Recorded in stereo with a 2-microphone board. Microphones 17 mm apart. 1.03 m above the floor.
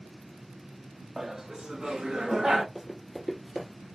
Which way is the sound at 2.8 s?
10° right (ahead or behind).